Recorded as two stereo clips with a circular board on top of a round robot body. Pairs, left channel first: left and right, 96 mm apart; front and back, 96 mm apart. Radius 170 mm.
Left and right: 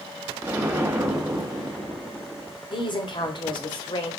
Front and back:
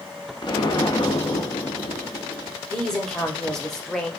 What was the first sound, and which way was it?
An explosion, 30° right.